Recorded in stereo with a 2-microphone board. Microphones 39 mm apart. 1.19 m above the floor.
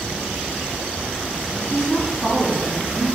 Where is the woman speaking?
45° left (ahead or behind), 1.2 m; by 3.0 s 20° left (ahead or behind), 3 m.